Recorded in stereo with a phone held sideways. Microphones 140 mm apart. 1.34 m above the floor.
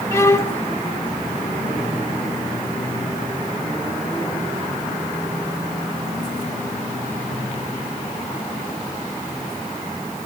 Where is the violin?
15° left (ahead or behind), 0.8 m.